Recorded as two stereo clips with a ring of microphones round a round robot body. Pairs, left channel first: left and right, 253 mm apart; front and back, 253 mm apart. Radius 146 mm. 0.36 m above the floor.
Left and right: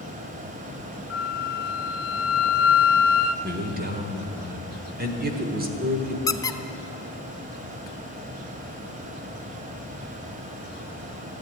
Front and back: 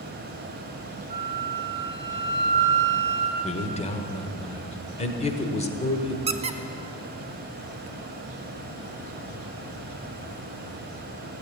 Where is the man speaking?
55° right, 1.5 m.